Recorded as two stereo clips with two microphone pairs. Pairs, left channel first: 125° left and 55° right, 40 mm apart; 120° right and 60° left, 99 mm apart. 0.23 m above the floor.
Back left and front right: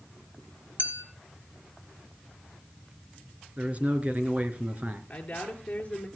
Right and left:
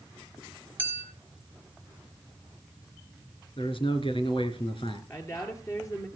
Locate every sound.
0.8 s a clink: 15° right, 3 m
3.6 s a man speaking: 105° right, 2.5 m
5.1 s a woman speaking: straight behind, 4.5 m